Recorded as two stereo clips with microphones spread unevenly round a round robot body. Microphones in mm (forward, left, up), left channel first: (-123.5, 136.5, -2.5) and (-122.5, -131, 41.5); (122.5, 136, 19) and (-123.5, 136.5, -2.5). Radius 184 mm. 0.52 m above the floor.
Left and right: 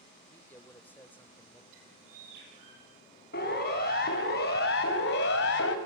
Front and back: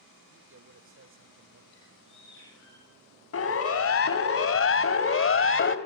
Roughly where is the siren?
Ahead left.